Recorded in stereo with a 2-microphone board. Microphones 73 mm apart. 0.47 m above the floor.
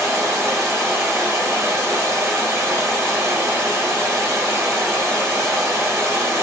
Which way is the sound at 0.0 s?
40° right (ahead or behind).